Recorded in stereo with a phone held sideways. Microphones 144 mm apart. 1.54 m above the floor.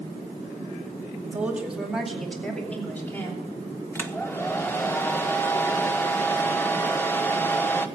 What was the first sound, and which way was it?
A woman speaking, 10° right (ahead or behind).